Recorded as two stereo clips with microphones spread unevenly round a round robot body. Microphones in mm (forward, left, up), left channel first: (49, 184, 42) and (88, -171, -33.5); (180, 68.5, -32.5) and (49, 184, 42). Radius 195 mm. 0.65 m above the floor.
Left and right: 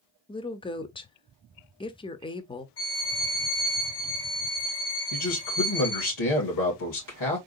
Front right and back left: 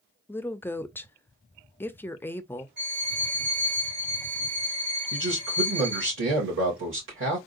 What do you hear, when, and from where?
0.3 s a woman speaking: 10° left, 0.7 m
2.8 s a violin: 155° left, 3 m
5.1 s a man speaking: 145° left, 2.5 m